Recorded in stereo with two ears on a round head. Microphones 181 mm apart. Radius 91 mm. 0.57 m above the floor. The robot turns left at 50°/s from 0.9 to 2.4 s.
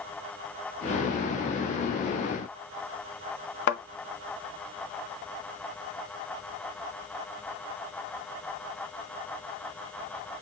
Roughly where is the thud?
Left.